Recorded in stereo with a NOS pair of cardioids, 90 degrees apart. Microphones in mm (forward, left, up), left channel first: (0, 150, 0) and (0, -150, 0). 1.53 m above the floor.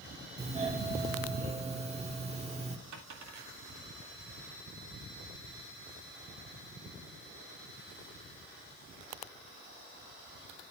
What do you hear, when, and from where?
0.4 s a doorbell: 20° right, 1.3 m
2.9 s a dropped coin: 70° right, 2.5 m